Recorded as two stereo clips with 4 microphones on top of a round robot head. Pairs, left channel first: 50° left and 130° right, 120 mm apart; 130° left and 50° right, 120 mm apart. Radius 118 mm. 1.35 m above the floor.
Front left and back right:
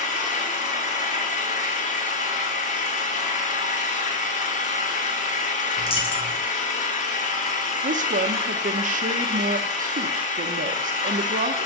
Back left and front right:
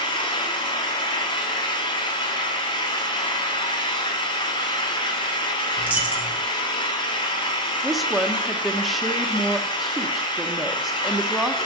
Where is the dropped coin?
20° left, 0.8 m.